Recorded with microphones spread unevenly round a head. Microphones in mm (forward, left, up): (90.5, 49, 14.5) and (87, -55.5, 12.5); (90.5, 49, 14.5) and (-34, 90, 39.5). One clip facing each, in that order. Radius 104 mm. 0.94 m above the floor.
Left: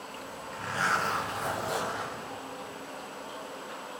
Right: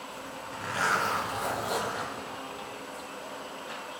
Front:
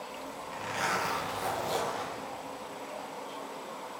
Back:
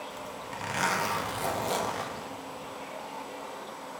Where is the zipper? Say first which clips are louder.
Right 1 dB, back 1 dB; 175° right, 1.0 m.